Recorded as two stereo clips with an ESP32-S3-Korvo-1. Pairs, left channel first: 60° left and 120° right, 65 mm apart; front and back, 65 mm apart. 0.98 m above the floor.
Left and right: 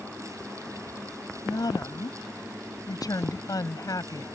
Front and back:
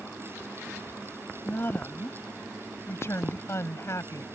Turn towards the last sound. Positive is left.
turn(degrees=35)